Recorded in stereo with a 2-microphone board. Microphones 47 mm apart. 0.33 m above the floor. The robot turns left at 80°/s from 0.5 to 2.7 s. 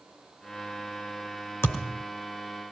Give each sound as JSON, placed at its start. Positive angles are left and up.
{"t": 1.6, "sound": "a thud", "side_deg": 70, "distance_m": 2.5}